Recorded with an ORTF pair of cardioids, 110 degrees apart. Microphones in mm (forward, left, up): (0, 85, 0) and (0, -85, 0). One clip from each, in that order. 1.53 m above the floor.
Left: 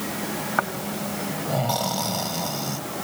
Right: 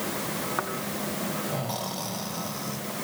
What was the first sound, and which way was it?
Snoring, 30° left.